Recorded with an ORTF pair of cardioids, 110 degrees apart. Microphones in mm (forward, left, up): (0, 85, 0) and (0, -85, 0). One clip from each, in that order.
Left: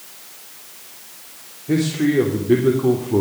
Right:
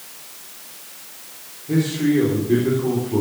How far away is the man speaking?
About 3.5 m.